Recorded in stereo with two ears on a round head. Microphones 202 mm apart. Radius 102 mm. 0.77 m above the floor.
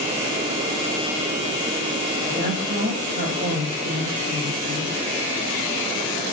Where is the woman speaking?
40° right (ahead or behind), 5 m.